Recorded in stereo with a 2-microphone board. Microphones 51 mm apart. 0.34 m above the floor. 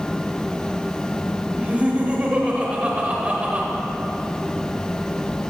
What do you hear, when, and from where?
1.6 s laughter: 25° right (ahead or behind), 1.2 m